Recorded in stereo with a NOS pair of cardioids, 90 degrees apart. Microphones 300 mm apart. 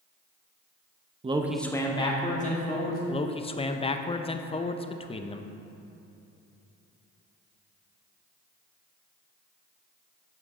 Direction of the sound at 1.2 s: 20° right.